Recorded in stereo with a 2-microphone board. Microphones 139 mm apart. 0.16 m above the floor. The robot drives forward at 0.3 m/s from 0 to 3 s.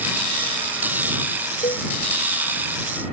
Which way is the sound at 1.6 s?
60° left (ahead or behind).